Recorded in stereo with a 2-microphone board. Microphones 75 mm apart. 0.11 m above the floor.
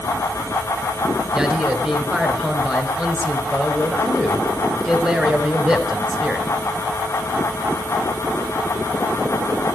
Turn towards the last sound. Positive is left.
turn(degrees=-10)  # may be behind; listen again after turning